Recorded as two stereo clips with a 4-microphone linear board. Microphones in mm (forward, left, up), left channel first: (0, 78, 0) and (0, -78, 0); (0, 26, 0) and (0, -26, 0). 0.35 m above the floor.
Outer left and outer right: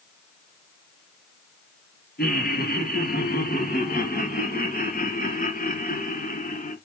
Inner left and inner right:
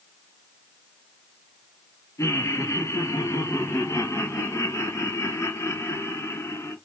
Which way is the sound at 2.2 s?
75° left (ahead or behind).